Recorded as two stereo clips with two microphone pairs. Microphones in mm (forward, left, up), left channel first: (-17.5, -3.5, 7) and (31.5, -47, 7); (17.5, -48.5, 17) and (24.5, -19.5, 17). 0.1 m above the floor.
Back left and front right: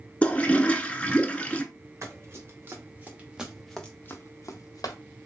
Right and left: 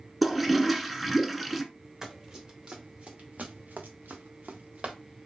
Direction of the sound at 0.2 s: 165° left.